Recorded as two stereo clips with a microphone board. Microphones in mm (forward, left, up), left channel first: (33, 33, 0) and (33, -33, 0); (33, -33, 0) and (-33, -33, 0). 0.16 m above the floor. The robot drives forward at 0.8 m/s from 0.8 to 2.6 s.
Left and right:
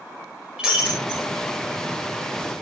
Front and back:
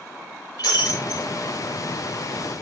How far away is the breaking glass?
About 6 m.